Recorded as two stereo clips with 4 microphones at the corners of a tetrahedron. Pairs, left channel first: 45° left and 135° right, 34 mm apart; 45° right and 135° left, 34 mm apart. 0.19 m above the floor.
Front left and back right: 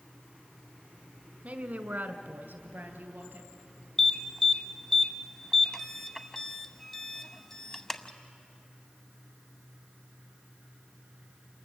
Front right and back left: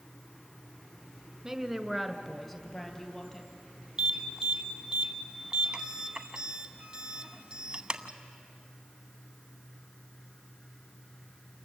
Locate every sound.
1.4 s a woman speaking: 160° right, 1.4 m; by 3.5 s 120° right, 4 m
4.0 s an alarm: 105° left, 1.1 m